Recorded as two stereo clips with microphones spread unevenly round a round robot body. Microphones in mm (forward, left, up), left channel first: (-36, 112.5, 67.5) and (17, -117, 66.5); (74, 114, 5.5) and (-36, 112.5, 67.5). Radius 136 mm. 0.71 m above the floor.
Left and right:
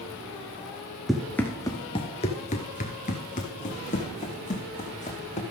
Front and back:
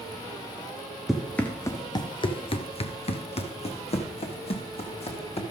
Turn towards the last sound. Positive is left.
turn(degrees=40)